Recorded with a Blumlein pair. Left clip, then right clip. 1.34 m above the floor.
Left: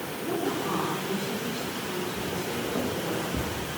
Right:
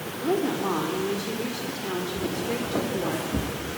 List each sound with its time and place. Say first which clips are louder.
0.2 s a woman speaking: right 5 dB; 65° right, 4 m
2.2 s footsteps: right 2 dB; 20° right, 5 m